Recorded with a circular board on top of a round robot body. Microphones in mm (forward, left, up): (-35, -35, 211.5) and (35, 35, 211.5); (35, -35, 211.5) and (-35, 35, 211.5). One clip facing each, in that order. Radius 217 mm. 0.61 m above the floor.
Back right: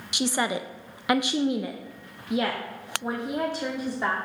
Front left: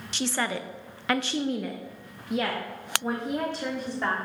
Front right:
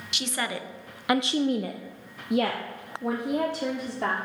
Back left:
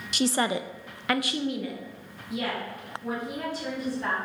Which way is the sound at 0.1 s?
155° left.